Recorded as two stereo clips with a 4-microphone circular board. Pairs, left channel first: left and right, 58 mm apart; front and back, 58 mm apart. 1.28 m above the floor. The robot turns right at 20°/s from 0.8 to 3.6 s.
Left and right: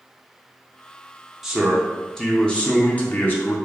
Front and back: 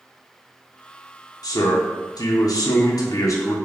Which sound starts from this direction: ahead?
A man speaking, at 1.4 s.